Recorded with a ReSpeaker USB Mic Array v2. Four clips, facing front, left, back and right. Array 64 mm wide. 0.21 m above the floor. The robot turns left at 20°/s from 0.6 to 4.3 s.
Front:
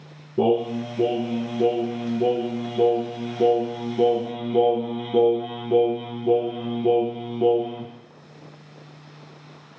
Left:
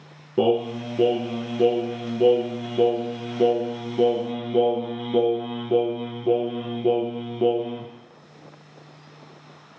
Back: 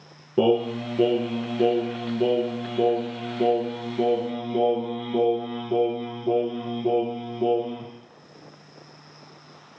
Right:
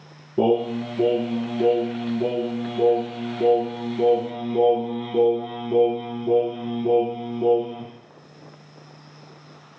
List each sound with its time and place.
0.4 s singing: 145° left, 0.7 m; by 7.9 s 70° left, 0.7 m